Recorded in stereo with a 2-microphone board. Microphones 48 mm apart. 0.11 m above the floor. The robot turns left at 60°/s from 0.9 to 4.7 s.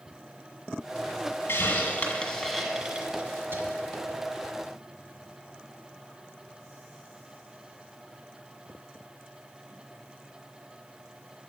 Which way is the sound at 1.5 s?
55° left (ahead or behind).